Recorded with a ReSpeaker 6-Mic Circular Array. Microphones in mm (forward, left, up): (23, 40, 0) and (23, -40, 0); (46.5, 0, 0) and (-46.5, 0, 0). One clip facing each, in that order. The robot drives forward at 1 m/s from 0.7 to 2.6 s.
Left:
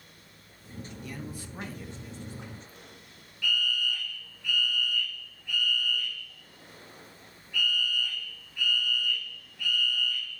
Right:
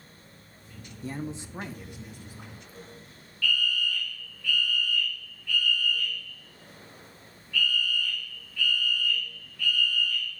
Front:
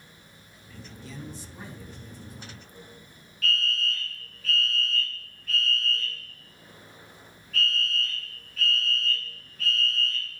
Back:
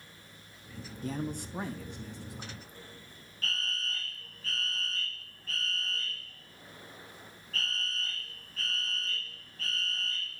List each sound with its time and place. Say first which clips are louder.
1.0 s a man speaking: right 8 dB, back 7 dB; 140° right, 0.6 m; by 2.6 s 170° right, 2 m
3.4 s a fire alarm: right 2 dB, front 8 dB; 145° left, 1.7 m